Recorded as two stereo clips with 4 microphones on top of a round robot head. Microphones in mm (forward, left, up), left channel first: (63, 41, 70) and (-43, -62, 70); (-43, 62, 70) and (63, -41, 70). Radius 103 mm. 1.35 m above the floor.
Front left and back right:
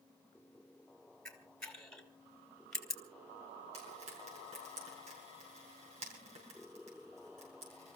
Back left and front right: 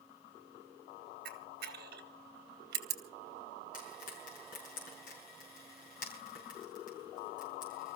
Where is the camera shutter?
40° right, 2.5 m.